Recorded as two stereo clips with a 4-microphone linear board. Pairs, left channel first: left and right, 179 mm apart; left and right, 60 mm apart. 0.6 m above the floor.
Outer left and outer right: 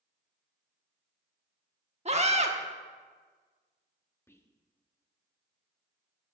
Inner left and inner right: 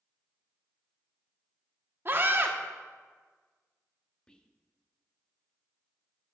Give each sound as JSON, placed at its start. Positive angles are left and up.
{"t": 2.0, "sound": "a scream", "side_deg": -40, "distance_m": 1.0}
{"t": 4.3, "sound": "whispering", "side_deg": 15, "distance_m": 0.7}